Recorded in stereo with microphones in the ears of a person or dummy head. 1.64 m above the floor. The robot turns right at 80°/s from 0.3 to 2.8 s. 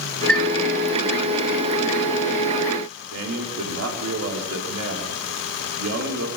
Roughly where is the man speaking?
Right.